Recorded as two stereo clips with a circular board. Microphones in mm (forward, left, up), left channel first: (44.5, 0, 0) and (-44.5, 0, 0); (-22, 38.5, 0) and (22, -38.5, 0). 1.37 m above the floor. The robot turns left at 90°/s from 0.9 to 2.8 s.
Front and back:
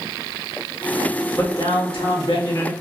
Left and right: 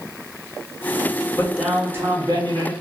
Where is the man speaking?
60° left, 1.1 m; by 2.7 s 60° right, 1.1 m.